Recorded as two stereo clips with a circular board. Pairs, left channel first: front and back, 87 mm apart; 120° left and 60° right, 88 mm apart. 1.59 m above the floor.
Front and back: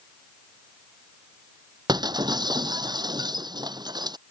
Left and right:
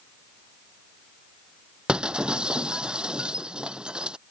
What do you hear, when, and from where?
1.9 s breaking glass: 140° right